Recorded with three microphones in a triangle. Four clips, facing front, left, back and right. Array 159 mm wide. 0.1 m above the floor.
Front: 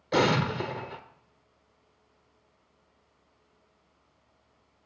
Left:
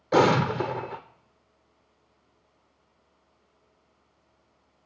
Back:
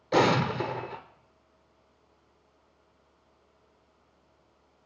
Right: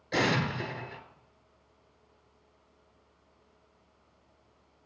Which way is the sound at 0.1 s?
90° left.